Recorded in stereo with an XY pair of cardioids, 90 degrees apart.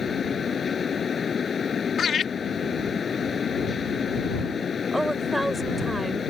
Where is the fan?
45° left.